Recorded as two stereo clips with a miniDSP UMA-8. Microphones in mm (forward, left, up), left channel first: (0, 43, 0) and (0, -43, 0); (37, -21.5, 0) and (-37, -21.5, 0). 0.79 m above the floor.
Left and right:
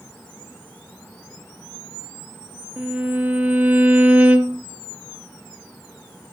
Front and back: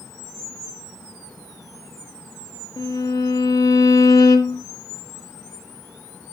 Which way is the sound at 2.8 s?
20° right.